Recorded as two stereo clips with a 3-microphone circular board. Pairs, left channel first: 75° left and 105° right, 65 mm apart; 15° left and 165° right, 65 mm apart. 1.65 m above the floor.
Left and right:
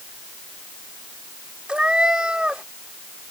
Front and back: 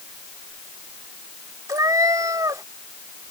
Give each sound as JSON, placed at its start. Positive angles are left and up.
{"t": 1.7, "sound": "a cat meowing", "azimuth_deg": 180}